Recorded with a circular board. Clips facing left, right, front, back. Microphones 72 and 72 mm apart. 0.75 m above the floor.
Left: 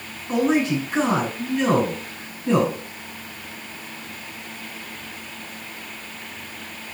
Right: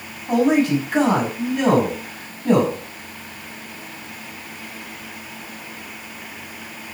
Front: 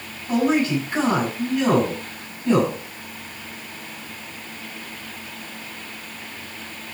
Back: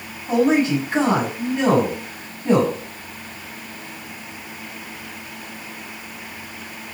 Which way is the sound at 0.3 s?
115° right.